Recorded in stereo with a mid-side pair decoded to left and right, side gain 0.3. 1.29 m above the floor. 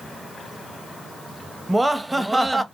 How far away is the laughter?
About 0.7 m.